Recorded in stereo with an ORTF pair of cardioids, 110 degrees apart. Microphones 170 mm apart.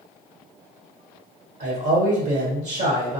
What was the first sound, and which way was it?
A man speaking, 50° right.